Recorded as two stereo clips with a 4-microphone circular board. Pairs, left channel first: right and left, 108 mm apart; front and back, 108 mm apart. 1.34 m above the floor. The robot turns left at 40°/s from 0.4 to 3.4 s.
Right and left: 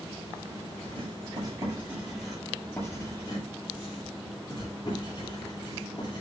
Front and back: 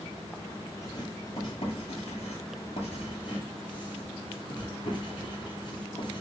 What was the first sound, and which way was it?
Writing, 60° left.